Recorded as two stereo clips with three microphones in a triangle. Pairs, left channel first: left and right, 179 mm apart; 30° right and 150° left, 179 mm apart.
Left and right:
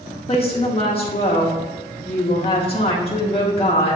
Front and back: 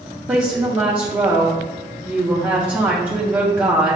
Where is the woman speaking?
80° left, 0.5 m.